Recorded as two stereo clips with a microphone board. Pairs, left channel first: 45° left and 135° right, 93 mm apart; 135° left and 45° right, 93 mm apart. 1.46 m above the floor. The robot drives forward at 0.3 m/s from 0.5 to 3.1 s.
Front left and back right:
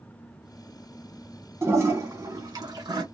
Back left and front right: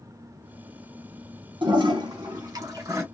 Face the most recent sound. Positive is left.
turn(degrees=-100)